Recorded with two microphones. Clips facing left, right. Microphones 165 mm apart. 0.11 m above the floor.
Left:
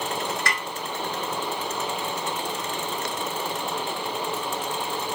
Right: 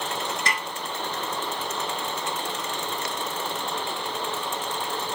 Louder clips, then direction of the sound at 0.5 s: Even; 25° right (ahead or behind).